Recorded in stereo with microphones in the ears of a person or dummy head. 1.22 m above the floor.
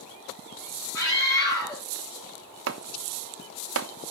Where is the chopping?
65° right (ahead or behind), 0.8 m.